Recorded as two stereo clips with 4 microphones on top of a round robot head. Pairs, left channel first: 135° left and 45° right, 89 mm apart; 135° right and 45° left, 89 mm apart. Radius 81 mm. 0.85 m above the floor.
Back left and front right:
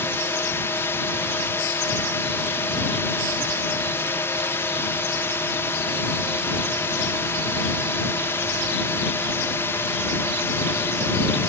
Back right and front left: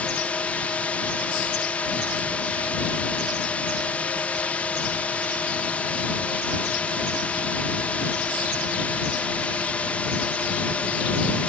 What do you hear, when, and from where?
0.0 s a drone: 165° left